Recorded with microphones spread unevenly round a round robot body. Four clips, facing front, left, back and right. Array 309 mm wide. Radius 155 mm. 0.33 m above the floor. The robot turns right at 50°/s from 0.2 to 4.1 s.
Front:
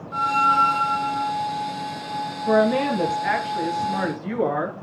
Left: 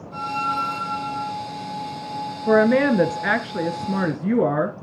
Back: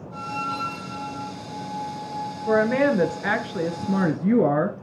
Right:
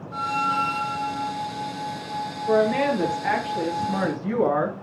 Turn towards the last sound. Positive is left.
turn(degrees=150)